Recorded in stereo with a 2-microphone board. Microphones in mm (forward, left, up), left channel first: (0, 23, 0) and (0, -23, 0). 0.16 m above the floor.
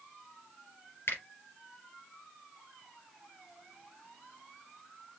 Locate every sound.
1.1 s a finger snap: 65° left (ahead or behind), 3.5 m